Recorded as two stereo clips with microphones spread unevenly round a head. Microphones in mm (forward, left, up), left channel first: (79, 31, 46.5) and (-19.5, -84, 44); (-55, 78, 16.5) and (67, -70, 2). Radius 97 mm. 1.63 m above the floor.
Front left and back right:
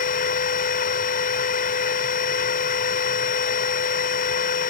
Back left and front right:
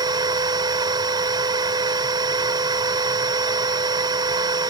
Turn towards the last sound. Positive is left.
turn(degrees=20)